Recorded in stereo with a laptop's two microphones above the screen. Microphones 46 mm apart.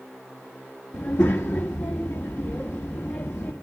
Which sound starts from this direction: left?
A child speaking, at 0.9 s.